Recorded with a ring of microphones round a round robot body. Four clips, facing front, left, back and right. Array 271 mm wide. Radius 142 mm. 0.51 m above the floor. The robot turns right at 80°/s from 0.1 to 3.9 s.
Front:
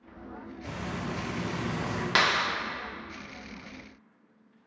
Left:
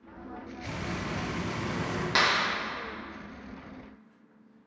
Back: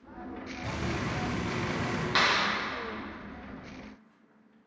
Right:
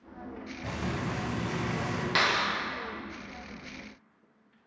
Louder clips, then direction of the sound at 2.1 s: Left 1 dB, front 1 dB; 10° left.